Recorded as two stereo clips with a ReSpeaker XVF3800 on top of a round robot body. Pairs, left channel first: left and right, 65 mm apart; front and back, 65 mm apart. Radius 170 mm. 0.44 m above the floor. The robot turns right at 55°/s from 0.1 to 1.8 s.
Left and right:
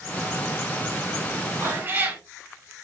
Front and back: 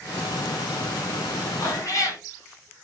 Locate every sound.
1.6 s a cat meowing: 45° right, 1.1 m; by 2.2 s 35° right, 1.1 m